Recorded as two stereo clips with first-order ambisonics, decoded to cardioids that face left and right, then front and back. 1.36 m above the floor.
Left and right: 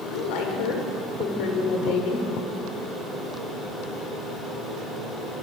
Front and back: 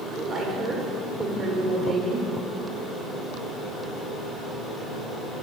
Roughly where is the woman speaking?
Behind left.